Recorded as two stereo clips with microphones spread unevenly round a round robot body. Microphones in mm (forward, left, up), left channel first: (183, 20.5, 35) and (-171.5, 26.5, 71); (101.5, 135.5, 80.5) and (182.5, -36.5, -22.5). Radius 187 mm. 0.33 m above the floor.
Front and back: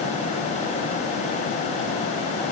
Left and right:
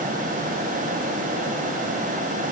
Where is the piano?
I don't hear a piano.